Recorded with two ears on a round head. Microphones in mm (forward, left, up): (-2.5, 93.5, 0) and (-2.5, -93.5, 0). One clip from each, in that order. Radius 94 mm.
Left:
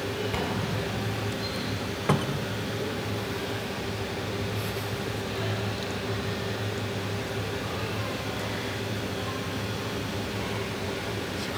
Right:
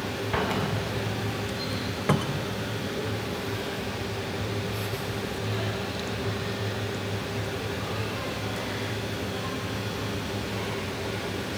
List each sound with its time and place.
0.3 s an explosion: 50° right (ahead or behind), 1.5 m
2.1 s a cupboard door: centre (ahead or behind), 0.7 m